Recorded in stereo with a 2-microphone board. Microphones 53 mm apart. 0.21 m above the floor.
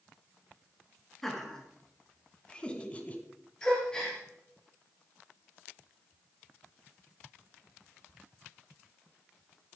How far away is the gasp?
About 4 m.